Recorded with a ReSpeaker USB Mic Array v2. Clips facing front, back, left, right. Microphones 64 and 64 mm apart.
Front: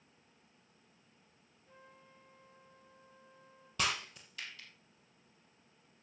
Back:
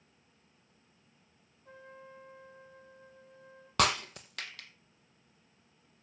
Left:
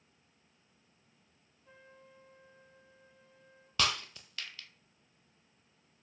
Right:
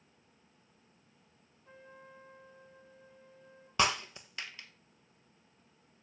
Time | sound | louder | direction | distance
1.6 | a trumpet | back 9 dB, right 4 dB | 170° right | 4 m
3.8 | breaking glass | back 8 dB, right 3 dB | 155° right | 1.4 m